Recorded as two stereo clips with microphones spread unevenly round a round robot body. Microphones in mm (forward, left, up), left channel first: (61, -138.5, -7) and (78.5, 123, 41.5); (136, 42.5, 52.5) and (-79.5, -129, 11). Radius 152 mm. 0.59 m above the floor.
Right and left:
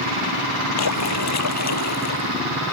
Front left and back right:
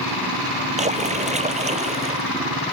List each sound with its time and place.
0.8 s a splash: 75° right